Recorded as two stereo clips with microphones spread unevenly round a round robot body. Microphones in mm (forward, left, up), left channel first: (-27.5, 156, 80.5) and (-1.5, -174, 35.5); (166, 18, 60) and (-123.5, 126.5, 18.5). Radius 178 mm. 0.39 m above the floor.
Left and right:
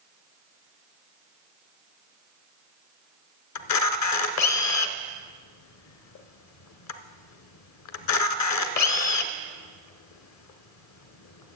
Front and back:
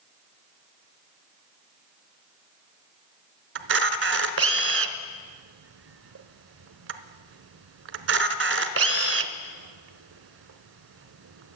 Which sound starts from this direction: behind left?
A camera shutter, at 3.5 s.